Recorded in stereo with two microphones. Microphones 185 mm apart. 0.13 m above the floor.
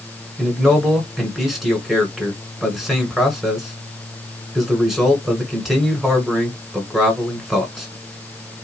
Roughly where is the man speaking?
Centre.